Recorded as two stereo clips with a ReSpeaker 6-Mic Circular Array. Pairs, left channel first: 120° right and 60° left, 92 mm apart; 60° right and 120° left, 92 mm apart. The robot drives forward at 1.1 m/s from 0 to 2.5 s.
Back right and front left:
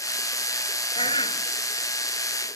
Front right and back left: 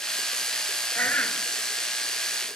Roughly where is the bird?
Behind right.